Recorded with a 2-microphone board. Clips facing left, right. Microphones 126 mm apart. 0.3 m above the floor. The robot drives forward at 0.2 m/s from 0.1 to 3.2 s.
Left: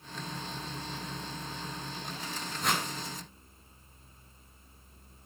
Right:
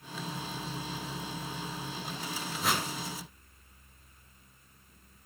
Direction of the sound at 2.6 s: 5° right (ahead or behind).